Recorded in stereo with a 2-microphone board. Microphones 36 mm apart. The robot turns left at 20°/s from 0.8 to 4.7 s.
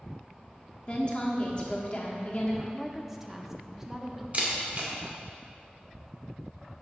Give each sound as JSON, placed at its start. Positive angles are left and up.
{"t": 0.9, "sound": "a woman speaking", "azimuth_deg": 125, "distance_m": 1.1}
{"t": 2.7, "sound": "a woman speaking", "side_deg": -5, "distance_m": 0.6}
{"t": 4.3, "sound": "a camera shutter", "side_deg": -50, "distance_m": 1.6}